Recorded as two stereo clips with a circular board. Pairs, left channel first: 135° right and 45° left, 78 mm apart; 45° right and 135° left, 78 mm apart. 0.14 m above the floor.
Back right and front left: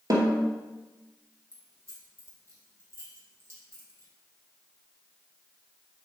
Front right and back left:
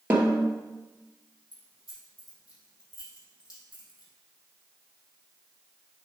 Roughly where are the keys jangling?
Ahead.